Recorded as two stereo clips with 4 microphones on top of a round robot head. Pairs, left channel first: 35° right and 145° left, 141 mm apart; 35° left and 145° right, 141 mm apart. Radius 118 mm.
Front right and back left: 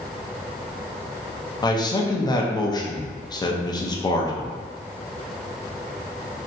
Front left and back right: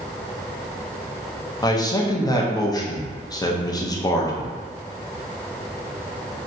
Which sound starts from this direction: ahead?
A man speaking, at 1.6 s.